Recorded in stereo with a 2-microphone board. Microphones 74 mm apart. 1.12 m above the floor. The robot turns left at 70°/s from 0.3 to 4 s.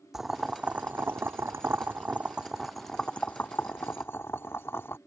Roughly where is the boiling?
Centre.